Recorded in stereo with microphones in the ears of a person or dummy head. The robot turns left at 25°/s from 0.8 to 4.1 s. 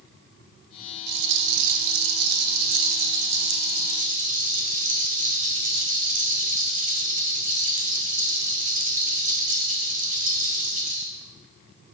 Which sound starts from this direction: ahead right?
A rattle, at 1.1 s.